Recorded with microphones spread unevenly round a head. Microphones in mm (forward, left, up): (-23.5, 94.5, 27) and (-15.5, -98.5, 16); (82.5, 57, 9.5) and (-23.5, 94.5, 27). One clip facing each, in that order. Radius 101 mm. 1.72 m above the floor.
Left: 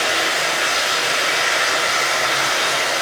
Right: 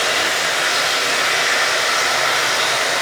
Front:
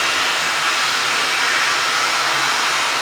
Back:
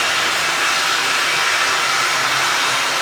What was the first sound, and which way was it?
Running water, 175° left.